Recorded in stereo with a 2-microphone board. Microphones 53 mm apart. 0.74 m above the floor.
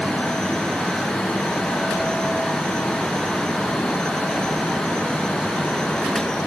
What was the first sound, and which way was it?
Only background noise.